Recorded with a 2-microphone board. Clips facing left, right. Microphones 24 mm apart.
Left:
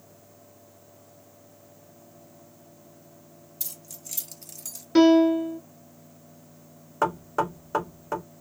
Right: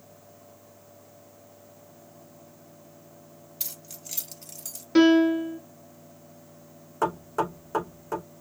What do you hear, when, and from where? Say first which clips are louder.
3.6 s keys jangling: right 1 dB; 35° right (ahead or behind), 1.3 m; by 4.8 s 10° left (ahead or behind), 1.1 m
5.0 s a piano: left 1 dB; 5° right (ahead or behind), 0.9 m
7.0 s knocking: left 1 dB; 20° left (ahead or behind), 1.0 m